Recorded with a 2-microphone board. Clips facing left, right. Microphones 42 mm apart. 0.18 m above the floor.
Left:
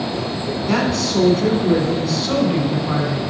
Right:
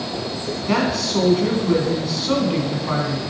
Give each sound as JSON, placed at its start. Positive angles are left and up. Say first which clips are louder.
{"t": 0.7, "sound": "a woman speaking", "louder": "left 1 dB", "side_deg": -5, "distance_m": 1.2}